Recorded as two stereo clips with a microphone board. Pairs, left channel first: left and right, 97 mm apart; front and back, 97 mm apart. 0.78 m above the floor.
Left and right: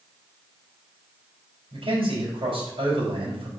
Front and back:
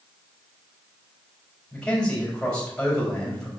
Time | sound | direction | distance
1.7 | a man speaking | 80° right | 4 m